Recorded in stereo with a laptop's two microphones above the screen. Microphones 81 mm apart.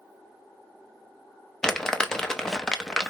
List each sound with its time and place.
1.6 s crumpling: 5° left (ahead or behind), 0.5 m